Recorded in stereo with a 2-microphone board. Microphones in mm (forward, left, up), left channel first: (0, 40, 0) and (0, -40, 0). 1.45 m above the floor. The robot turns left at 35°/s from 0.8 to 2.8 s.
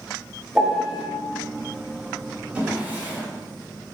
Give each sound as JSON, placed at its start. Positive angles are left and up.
{"t": 0.6, "sound": "a piano", "side_deg": -5, "distance_m": 1.2}
{"t": 2.5, "sound": "a drawer", "side_deg": -15, "distance_m": 1.2}